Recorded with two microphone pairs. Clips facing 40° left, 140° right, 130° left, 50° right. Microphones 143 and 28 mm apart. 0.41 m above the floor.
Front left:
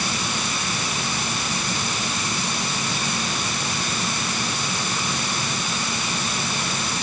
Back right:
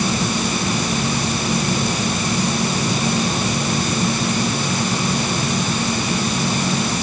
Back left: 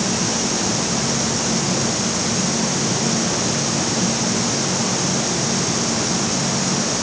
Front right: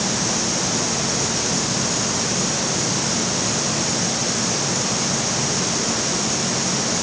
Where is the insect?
170° left.